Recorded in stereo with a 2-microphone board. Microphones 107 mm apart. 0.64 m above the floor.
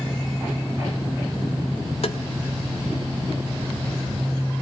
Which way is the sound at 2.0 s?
70° left (ahead or behind).